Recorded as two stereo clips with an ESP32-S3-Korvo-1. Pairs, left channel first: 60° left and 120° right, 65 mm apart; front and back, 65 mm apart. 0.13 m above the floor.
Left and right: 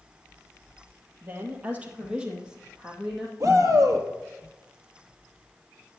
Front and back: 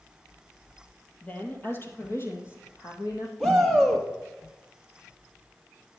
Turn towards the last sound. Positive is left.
turn(degrees=-80)